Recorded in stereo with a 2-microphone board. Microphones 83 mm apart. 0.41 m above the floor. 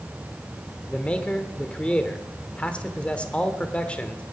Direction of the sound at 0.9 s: 15° left (ahead or behind).